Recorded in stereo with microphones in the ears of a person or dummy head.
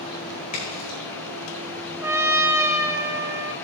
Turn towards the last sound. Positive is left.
turn(degrees=-15)  # may be behind; listen again after turning